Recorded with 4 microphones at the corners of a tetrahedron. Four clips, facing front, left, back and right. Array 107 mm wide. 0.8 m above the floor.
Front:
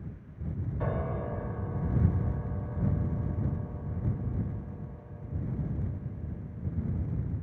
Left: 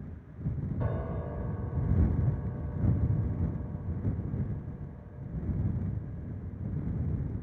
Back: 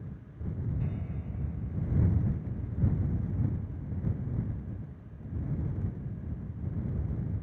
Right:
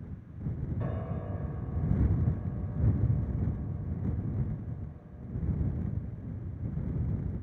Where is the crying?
No crying in this recording.